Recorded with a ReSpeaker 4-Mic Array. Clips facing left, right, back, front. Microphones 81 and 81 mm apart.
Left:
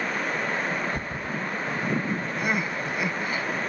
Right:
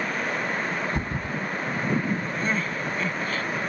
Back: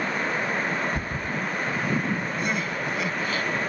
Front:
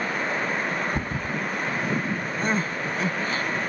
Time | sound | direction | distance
0.9 | a thud | 40° right | ?
2.4 | crying | 20° left | ?